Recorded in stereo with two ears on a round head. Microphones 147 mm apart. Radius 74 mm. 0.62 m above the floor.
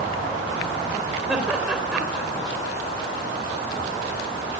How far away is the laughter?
About 3 m.